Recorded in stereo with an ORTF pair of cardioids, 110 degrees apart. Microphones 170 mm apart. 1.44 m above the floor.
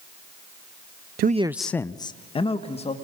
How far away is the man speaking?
About 0.6 m.